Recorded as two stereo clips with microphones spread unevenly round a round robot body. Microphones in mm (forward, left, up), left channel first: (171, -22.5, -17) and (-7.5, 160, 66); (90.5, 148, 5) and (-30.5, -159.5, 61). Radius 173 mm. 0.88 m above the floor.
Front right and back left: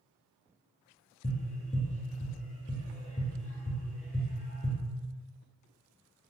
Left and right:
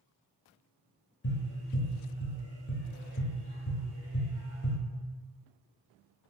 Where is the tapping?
25° left, 0.5 m.